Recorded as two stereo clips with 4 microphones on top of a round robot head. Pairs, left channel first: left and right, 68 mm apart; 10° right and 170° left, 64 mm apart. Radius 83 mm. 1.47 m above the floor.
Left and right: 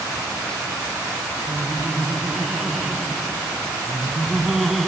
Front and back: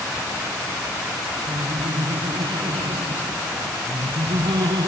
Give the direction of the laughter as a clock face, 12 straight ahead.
6 o'clock.